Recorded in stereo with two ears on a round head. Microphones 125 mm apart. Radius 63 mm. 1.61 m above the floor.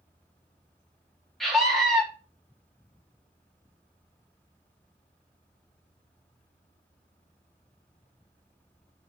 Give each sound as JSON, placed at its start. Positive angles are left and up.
{"t": 1.4, "sound": "a scream", "side_deg": 0, "distance_m": 3.0}